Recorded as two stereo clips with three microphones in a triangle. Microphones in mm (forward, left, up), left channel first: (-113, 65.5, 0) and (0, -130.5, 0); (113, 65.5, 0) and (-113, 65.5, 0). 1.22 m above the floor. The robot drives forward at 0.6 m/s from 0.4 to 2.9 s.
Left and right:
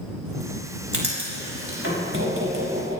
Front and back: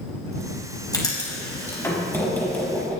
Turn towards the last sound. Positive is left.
turn(degrees=-85)